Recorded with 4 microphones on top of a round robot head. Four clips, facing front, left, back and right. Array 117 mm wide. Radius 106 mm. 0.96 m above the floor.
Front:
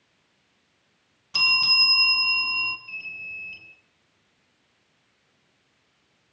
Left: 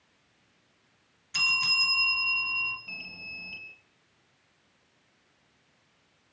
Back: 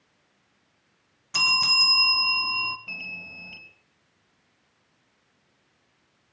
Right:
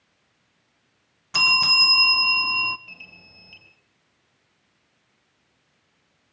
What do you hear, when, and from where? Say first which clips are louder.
1.3 s a bell: right 10 dB, back 2 dB; 100° right, 1.4 m
2.9 s an alarm: left 3 dB, back 1 dB; 175° left, 4.5 m